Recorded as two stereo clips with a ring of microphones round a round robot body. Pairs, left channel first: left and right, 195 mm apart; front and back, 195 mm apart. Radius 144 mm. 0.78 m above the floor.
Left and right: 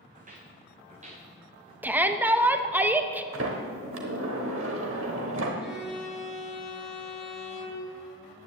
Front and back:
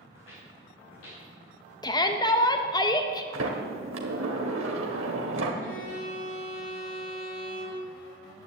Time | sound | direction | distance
0.1 | footsteps | 45° right | 3 m
1.8 | a shout | 25° right | 0.8 m
3.3 | a sliding door | 135° right | 1.1 m
5.6 | a violin | 5° right | 5 m